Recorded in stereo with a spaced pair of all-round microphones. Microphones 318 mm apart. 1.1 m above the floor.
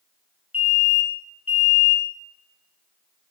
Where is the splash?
I don't hear a splash.